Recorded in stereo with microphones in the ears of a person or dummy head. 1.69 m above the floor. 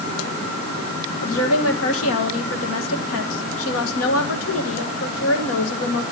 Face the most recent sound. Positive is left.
turn(degrees=80)